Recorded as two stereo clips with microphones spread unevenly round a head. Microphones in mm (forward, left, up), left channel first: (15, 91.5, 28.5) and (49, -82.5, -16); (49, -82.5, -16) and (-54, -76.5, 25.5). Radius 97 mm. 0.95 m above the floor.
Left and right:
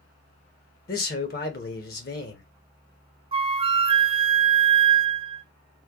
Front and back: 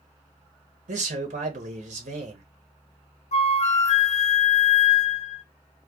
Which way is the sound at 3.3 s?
15° right.